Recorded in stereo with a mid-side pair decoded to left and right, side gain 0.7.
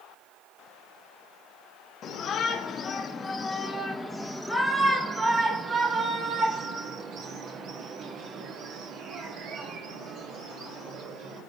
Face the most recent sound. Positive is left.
turn(degrees=-60)